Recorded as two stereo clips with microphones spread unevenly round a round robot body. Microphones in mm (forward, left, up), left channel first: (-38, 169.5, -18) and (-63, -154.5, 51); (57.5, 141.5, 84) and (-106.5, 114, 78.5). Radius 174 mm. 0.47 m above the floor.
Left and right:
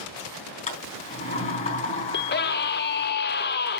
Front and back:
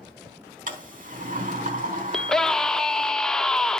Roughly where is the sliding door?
Behind left.